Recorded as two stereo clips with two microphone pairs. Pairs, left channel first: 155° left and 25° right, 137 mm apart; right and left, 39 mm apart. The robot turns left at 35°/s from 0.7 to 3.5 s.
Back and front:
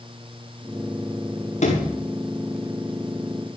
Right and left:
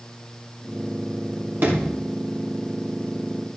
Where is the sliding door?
125° left, 5.5 m; by 2.0 s 110° left, 5.5 m.